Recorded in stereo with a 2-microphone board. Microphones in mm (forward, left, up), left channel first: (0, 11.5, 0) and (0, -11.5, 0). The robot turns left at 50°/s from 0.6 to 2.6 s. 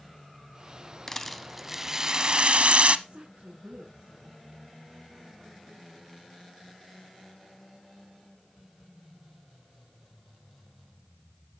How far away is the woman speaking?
About 3 m.